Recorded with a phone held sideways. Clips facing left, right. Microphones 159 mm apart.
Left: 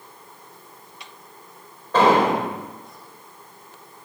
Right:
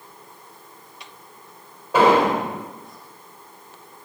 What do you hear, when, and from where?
1.9 s an explosion: 10° right (ahead or behind), 4.5 m